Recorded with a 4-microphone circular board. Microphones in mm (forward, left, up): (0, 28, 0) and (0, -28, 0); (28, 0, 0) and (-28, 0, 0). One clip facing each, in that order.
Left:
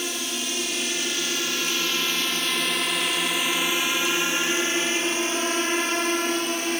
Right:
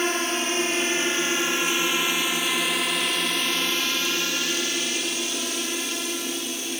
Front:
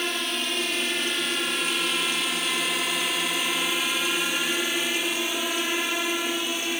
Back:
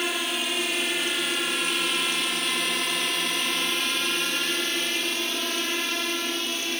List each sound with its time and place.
0.0 s a drone: 95° right; by 6.8 s 75° left